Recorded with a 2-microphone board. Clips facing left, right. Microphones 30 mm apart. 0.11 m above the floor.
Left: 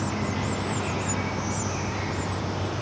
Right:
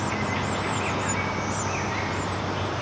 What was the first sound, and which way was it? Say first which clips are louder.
An insect: right 2 dB; 30° right (ahead or behind).